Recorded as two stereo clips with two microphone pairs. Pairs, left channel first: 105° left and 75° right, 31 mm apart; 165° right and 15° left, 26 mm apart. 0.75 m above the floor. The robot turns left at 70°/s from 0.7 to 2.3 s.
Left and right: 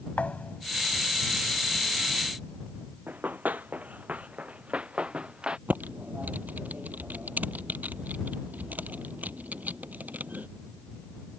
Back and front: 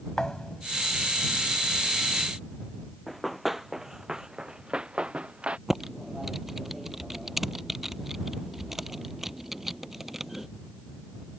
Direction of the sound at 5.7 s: 60° right.